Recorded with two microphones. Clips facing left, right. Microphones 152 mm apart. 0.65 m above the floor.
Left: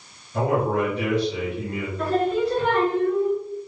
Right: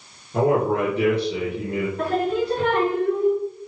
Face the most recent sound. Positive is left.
turn(degrees=-75)  # may be behind; listen again after turning